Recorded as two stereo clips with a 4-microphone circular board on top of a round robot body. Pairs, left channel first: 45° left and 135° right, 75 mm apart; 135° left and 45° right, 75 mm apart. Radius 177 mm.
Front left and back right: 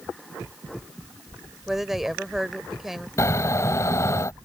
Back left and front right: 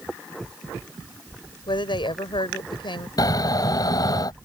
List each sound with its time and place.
1.7 s a woman speaking: 140° left
3.2 s snoring: 95° left